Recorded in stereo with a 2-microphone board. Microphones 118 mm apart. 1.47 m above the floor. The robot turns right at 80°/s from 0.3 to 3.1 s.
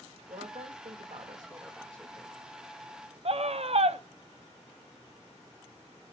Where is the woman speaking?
120° right, 2.5 m; by 2.3 s 40° left, 2.5 m.